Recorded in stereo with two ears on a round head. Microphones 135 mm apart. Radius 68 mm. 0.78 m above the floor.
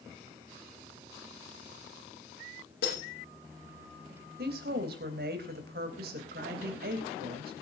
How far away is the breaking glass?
About 9.5 m.